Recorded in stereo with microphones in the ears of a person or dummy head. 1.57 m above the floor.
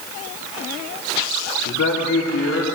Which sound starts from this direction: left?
A man speaking, at 1.6 s.